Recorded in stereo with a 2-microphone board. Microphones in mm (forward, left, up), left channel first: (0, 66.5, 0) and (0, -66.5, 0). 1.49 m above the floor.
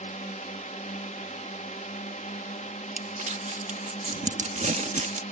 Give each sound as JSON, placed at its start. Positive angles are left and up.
{"t": 0.0, "sound": "a drone", "side_deg": 75}
{"t": 3.0, "sound": "crumpling", "side_deg": -65}